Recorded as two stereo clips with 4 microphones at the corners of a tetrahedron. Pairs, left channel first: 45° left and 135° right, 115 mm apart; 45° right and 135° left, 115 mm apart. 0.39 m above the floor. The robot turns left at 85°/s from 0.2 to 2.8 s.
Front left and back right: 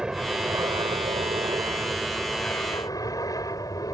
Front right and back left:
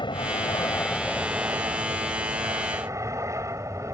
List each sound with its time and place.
0.0 s an aircraft: 55° right; by 3.9 s 85° left